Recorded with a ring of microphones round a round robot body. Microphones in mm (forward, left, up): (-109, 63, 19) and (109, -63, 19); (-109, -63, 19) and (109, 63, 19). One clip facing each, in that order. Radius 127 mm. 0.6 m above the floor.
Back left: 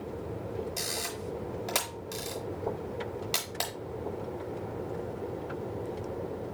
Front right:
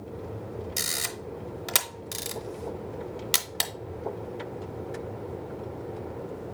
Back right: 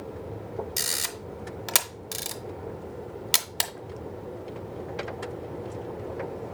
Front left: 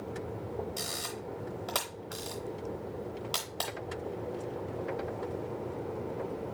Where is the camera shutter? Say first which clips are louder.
Back left 1 dB, back right 1 dB; 95° right, 0.5 m.